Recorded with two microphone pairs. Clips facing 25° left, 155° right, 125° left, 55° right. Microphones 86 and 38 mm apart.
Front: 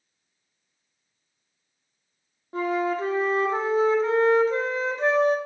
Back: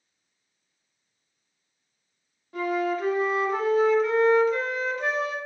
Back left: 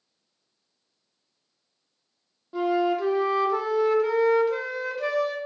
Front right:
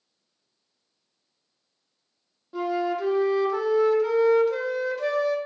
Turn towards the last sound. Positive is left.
turn(degrees=50)